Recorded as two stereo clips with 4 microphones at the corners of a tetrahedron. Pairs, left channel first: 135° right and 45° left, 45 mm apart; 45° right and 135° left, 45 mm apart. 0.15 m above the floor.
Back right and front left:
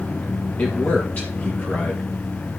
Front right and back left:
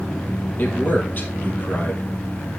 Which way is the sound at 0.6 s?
90° right.